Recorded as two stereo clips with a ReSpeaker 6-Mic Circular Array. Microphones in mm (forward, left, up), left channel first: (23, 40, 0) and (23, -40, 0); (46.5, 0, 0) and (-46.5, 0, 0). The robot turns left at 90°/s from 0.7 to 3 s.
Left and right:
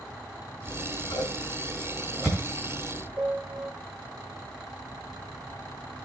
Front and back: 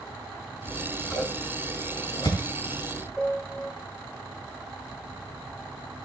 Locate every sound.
0.7 s scissors: 130° left, 6 m; by 3.1 s 75° right, 6 m
3.2 s a piano: 80° right, 1.2 m